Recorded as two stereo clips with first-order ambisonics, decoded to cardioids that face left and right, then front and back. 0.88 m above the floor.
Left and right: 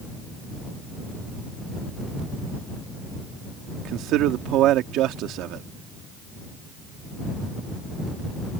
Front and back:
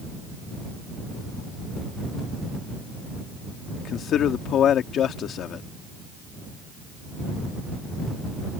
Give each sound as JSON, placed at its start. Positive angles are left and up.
{"t": 3.8, "sound": "a man speaking", "azimuth_deg": -55}